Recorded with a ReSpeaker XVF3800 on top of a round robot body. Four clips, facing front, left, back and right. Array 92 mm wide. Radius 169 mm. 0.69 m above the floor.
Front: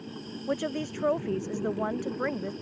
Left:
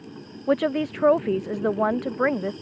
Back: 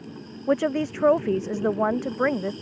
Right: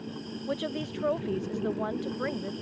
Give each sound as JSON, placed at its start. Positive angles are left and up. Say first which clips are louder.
{"t": 0.5, "sound": "a woman speaking", "louder": "left 11 dB, back 8 dB", "azimuth_deg": 125}